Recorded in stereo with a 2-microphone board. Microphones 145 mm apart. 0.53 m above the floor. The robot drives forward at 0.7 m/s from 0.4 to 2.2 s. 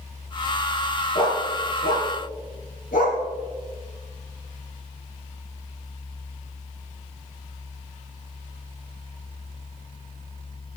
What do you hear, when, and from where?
1.1 s a dog barking: 85° left, 4 m